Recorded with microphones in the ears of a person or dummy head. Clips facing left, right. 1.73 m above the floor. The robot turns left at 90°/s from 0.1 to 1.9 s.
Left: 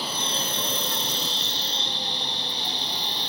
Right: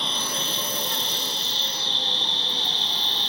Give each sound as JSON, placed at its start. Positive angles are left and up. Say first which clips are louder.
{"t": 0.0, "sound": "an insect", "louder": "left 1 dB", "azimuth_deg": 180}